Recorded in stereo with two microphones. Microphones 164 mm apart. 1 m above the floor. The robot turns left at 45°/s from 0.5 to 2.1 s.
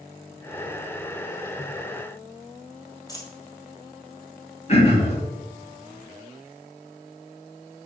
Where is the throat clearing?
40° left (ahead or behind), 1.9 m.